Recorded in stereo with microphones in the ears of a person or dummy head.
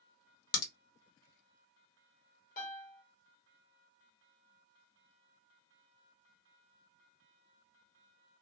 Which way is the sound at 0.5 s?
70° left (ahead or behind).